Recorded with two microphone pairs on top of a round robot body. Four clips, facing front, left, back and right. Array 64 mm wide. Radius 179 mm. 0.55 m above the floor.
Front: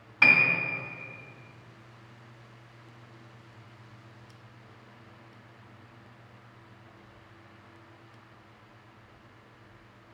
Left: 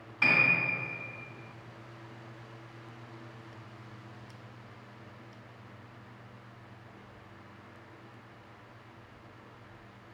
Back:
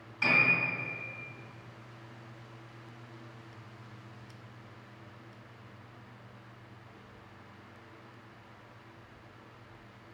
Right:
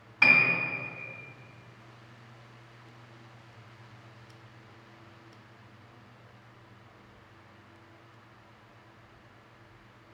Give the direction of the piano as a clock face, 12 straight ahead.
1 o'clock.